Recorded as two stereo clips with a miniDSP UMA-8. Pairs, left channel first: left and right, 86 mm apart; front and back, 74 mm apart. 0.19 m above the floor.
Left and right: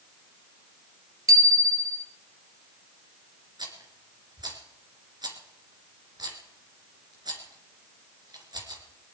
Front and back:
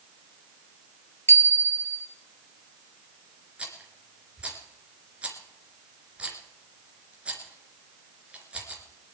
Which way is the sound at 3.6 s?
110° right.